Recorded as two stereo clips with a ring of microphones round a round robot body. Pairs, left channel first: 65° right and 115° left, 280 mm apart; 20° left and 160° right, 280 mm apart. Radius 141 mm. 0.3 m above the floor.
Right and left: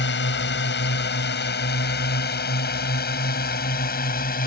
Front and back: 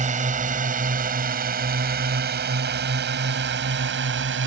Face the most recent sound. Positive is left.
turn(degrees=-120)